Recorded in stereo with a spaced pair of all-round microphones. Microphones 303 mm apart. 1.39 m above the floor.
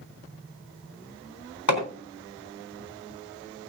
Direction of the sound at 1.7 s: 70° left (ahead or behind).